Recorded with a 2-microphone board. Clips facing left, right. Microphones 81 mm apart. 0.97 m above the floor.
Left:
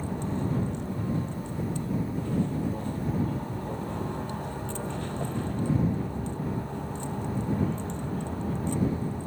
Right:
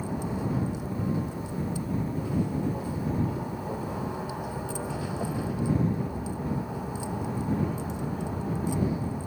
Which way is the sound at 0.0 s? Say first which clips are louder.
Even; 5° right (ahead or behind).